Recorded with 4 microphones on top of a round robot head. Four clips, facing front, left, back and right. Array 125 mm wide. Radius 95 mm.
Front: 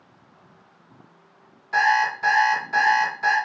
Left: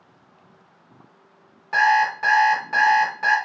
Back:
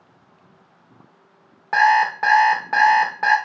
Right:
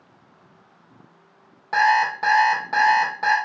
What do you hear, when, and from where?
1.7 s an alarm clock: 155° right, 0.8 m